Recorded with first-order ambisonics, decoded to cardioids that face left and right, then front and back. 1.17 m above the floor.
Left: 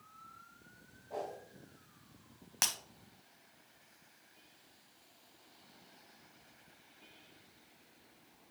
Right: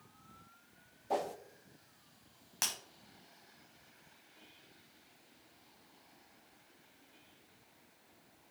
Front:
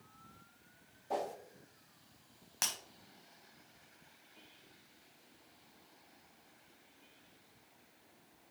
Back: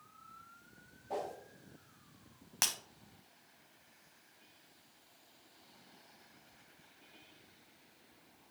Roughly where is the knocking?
I don't hear knocking.